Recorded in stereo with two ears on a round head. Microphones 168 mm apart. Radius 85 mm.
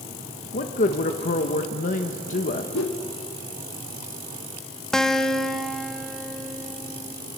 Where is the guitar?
5° left (ahead or behind), 0.7 m.